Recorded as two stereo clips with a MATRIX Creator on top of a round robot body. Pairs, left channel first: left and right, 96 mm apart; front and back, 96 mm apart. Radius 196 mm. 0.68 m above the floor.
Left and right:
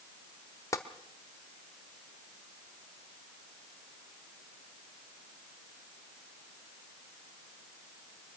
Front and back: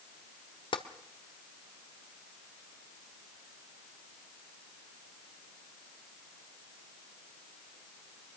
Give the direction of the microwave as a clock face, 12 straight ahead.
I don't hear a microwave.